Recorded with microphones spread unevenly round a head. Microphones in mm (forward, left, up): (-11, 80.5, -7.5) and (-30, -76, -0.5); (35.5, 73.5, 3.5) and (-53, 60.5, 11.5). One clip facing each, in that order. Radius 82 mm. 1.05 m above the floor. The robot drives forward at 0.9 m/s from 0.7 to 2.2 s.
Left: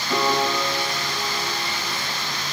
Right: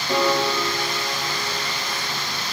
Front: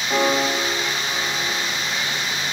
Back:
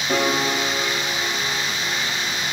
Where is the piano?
155° right, 3.5 m; by 2.0 s 160° right, 4.5 m.